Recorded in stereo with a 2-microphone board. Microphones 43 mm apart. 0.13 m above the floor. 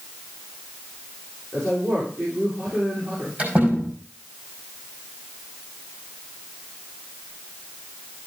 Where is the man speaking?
65° right (ahead or behind), 6.5 m.